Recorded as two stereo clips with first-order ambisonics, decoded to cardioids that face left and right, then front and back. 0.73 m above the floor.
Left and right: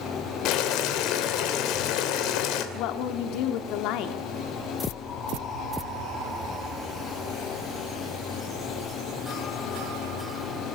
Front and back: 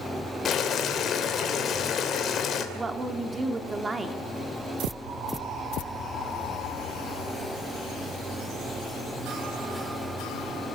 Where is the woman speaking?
105° left, 2 m.